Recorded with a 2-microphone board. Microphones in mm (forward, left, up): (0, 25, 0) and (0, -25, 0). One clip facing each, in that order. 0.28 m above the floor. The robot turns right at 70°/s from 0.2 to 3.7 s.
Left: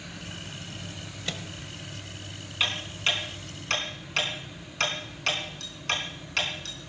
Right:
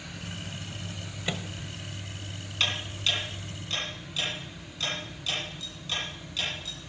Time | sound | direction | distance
1.3 | a microwave | 15° right (ahead or behind) | 1.0 m
2.6 | ticking | 10° left (ahead or behind) | 3.5 m